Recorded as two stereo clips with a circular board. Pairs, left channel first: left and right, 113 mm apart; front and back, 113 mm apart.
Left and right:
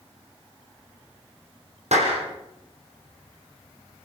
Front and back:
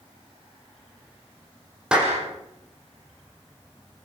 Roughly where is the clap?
Right.